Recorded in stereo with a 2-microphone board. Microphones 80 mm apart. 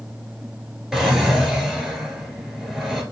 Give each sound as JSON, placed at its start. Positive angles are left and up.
{"t": 0.9, "sound": "a drawer", "side_deg": -5, "distance_m": 1.0}